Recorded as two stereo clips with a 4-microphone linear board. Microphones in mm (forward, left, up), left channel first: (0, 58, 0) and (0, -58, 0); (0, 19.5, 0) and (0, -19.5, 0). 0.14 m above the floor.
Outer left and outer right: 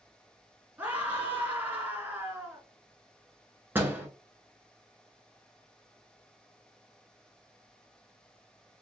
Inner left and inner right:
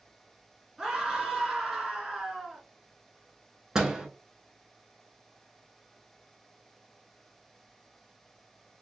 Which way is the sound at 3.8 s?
15° right (ahead or behind).